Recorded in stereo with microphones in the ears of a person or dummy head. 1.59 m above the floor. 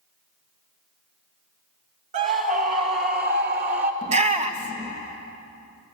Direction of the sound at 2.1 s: 45° right (ahead or behind).